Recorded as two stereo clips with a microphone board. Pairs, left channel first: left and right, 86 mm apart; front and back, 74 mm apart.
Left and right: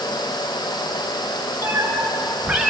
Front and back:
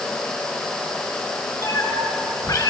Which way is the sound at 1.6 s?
35° right.